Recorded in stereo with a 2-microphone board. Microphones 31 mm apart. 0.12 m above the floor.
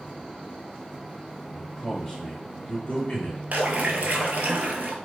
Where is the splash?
55° right (ahead or behind), 0.5 m.